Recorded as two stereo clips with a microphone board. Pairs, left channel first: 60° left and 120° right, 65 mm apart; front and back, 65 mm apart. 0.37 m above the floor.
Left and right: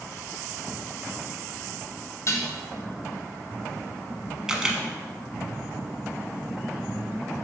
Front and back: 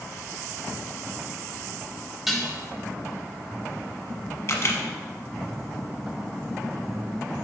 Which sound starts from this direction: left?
Dishes clattering, at 2.3 s.